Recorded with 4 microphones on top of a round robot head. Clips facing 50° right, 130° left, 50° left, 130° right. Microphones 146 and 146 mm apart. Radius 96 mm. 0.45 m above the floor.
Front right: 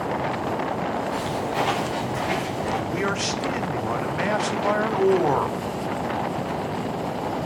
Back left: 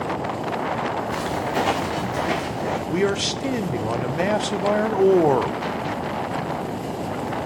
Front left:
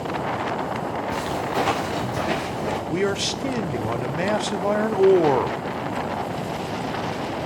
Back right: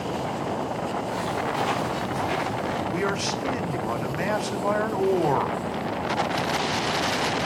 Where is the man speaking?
95° left, 1.3 m.